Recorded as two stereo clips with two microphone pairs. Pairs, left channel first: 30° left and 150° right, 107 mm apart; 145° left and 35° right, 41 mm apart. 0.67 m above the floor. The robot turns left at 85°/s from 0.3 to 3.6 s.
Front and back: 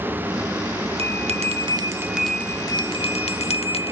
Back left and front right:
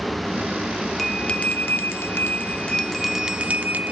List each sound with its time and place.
1.0 s a bell: 130° right, 0.6 m; by 3.9 s 10° left, 0.6 m